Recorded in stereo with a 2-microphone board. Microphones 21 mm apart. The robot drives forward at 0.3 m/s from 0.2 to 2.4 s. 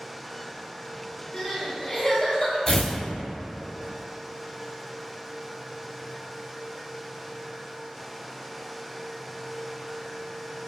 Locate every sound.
1.3 s crying: 35° left (ahead or behind), 1.6 m; by 2.6 s 30° left (ahead or behind), 1.7 m
2.7 s tearing paper: 30° left (ahead or behind), 0.5 m